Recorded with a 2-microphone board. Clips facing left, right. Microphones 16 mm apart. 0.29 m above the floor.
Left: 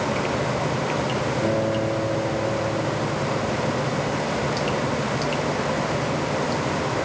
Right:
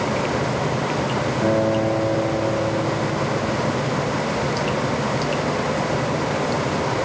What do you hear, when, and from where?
1.4 s a guitar: 35° right (ahead or behind), 1.7 m